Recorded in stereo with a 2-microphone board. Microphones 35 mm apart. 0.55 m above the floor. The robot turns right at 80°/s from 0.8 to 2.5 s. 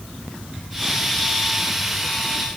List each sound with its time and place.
Only background noise.